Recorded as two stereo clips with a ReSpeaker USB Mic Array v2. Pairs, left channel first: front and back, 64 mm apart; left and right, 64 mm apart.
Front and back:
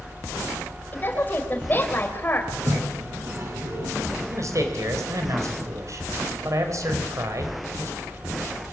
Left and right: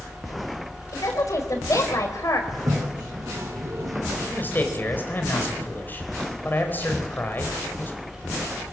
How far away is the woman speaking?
About 4.5 m.